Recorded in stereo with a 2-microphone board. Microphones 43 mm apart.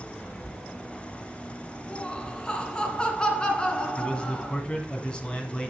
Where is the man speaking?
25° left (ahead or behind), 1.5 m.